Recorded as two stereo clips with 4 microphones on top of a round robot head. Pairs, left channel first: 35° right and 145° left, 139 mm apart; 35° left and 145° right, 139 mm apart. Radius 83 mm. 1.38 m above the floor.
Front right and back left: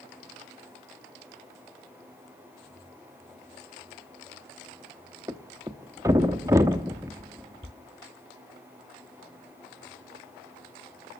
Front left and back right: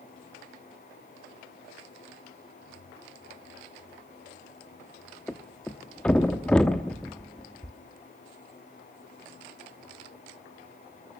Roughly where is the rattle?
I don't hear a rattle.